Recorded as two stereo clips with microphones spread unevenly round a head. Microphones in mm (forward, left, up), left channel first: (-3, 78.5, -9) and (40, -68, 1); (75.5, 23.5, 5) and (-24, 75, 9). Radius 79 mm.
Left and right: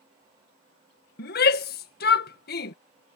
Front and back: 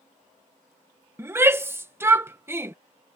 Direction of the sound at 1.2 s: 85° left.